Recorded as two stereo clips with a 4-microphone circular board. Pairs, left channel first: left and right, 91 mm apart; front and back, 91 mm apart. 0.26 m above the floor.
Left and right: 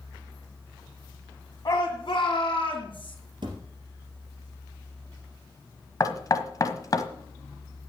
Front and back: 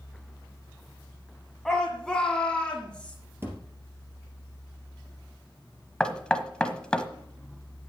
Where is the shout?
85° left, 1.7 m; by 3.1 s 80° left, 3 m.